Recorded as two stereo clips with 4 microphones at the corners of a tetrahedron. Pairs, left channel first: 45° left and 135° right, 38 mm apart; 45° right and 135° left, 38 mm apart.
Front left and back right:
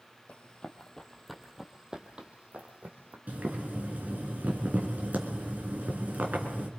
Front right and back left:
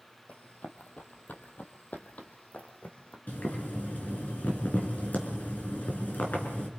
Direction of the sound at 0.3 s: 5° right.